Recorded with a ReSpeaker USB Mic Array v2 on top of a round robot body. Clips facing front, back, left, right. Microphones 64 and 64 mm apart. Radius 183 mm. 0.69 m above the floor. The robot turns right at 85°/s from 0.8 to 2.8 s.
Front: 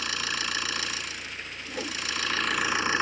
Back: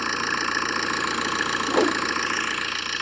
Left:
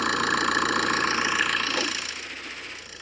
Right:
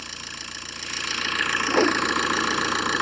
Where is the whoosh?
160° right; by 2.0 s 130° right.